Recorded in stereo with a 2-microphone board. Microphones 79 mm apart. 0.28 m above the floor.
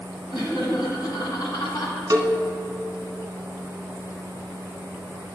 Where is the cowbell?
50° right (ahead or behind), 0.9 m.